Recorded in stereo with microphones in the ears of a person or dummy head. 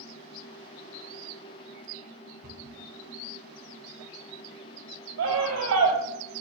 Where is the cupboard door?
45° right (ahead or behind), 6 m.